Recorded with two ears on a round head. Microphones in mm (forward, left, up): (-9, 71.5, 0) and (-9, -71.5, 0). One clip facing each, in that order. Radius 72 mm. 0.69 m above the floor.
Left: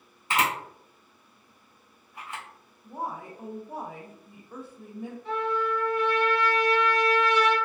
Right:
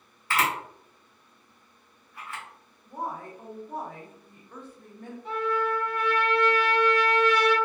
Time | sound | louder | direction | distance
0.3 | a camera shutter | even | 20° left (ahead or behind) | 0.8 m
2.8 | a woman speaking | even | 10° left (ahead or behind) | 0.5 m
5.2 | a trumpet | right 1 dB | 40° right (ahead or behind) | 1.2 m